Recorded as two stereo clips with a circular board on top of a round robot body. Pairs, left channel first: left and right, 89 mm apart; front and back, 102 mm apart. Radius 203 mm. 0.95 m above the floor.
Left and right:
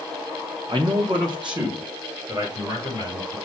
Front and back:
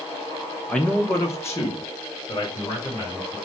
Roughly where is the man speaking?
Right.